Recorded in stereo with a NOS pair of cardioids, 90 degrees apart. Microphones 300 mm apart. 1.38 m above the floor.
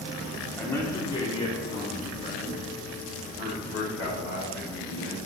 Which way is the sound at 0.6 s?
5° left.